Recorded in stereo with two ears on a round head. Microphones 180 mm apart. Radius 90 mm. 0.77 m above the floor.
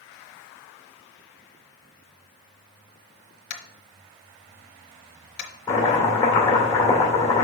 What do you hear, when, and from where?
3.5 s tapping: 55° left (ahead or behind), 1.2 m
5.7 s chopping: 15° left (ahead or behind), 2 m